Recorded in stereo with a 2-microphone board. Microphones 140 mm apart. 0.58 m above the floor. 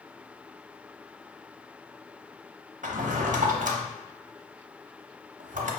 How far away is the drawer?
About 0.6 m.